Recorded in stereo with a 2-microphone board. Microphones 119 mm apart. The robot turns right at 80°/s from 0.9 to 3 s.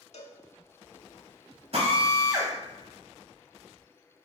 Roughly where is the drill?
Right.